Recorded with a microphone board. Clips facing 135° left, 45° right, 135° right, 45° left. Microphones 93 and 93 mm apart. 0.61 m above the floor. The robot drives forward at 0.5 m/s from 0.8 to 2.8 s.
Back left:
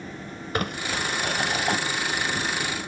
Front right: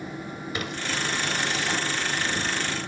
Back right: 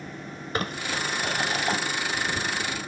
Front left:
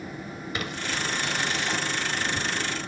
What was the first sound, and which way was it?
Crumpling, 175° left.